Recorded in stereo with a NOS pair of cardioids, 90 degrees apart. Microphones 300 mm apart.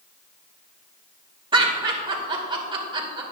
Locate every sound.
1.5 s laughter: 15° right, 2 m